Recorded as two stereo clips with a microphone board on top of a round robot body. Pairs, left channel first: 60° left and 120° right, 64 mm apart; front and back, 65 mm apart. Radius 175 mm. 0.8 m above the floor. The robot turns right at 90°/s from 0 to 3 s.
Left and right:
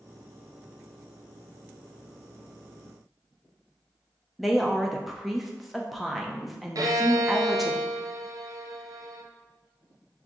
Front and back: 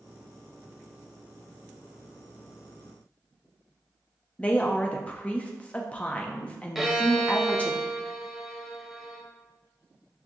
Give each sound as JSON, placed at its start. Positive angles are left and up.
{"t": 4.4, "sound": "a woman speaking", "azimuth_deg": -35, "distance_m": 0.7}
{"t": 6.8, "sound": "a violin", "azimuth_deg": -90, "distance_m": 0.8}